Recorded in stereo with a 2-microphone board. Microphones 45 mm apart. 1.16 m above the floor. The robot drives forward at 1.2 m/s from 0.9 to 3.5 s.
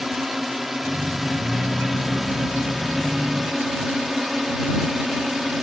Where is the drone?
5° right (ahead or behind).